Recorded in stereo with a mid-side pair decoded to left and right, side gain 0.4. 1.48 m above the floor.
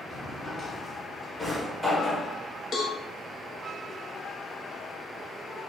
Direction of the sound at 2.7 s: 65° left.